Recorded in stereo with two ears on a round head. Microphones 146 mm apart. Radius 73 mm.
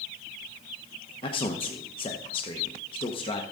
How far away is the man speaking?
About 1.0 m.